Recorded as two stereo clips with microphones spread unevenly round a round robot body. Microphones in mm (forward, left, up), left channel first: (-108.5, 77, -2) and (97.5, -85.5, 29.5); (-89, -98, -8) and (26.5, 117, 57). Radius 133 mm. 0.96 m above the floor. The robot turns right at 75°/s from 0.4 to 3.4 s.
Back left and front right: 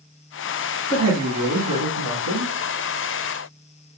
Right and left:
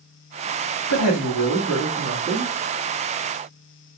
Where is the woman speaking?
125° right, 1.1 m; by 2.5 s 5° right, 1.1 m.